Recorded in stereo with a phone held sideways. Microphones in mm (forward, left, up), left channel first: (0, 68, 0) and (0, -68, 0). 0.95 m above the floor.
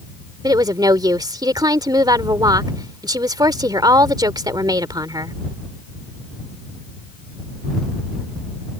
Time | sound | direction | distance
0.4 | a woman speaking | 30° right (ahead or behind) | ?